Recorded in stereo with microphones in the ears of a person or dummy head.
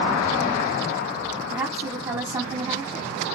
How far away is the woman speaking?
About 2 m.